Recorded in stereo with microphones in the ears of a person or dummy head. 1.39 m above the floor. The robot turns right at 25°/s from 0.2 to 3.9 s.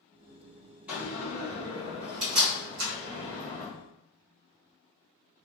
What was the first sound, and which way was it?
A door slam, 20° right (ahead or behind).